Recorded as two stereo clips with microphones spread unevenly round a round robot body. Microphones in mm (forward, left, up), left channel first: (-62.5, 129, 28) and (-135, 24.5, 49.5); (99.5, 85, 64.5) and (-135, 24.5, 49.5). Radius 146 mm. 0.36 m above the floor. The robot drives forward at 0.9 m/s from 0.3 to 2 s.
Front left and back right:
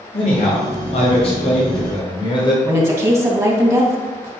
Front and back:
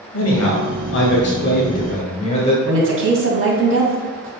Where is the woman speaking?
165° left, 2.5 m.